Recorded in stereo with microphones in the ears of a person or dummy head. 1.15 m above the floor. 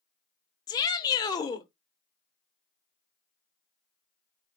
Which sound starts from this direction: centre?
A shout, at 0.7 s.